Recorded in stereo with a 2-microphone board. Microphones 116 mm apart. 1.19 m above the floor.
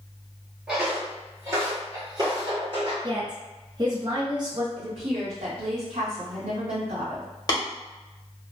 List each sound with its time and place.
0.7 s footsteps: 5° right (ahead or behind), 1.2 m; by 2.9 s 50° right (ahead or behind), 1.8 m
3.0 s a woman speaking: 35° right (ahead or behind), 0.8 m
4.8 s a woman speaking: 75° right (ahead or behind), 1.7 m
7.5 s tapping: 35° left (ahead or behind), 1.3 m